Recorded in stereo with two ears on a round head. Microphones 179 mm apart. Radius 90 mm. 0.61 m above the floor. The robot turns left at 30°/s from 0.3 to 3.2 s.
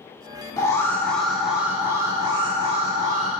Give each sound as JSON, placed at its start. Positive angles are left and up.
{"t": 0.6, "sound": "an alarm", "azimuth_deg": 25, "distance_m": 1.6}